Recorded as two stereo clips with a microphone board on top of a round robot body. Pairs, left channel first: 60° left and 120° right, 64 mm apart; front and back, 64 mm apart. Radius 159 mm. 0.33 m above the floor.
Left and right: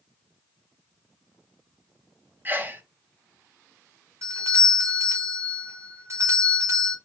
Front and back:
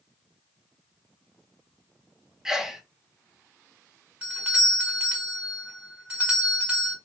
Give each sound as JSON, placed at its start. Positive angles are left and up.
{"t": 2.5, "sound": "a sneeze", "azimuth_deg": -105, "distance_m": 0.9}
{"t": 4.2, "sound": "a doorbell", "azimuth_deg": -115, "distance_m": 1.7}